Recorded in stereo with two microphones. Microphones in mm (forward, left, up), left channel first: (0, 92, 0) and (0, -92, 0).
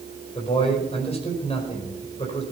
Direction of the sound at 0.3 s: 35° left (ahead or behind).